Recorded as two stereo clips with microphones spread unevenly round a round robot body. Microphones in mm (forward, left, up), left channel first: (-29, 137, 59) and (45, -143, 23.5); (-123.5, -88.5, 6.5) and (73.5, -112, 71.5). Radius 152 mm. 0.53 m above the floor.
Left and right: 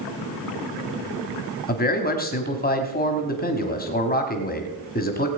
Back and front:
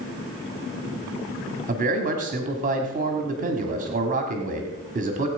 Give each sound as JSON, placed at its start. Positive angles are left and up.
{"t": 1.7, "sound": "a man speaking", "azimuth_deg": 50, "distance_m": 1.6}